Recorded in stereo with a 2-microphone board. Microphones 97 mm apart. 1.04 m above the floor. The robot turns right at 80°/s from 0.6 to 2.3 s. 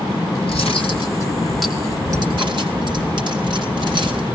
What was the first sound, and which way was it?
Cutlery clinking, 100° left.